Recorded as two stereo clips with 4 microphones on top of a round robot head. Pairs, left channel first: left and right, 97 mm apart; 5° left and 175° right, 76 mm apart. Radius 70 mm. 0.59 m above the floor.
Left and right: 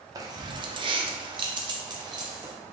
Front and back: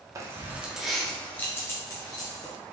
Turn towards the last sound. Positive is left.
turn(degrees=-40)